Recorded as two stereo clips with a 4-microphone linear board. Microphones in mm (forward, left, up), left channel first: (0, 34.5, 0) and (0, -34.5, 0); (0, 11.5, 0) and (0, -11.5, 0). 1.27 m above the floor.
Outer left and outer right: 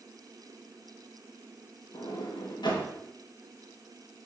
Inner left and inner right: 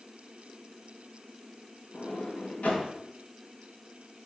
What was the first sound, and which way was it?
A sliding door, 80° left.